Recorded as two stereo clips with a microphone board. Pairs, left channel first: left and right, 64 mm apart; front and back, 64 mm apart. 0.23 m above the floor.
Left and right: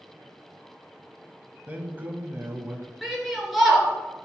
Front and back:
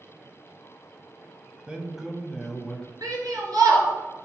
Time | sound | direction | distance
1.7 | a man speaking | 120° right | 1.2 m
3.0 | a shout | straight behind | 3 m